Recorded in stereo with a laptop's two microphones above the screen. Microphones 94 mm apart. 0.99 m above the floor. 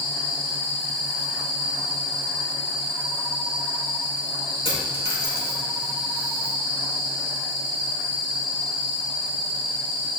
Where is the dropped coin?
80° left, 3.5 m.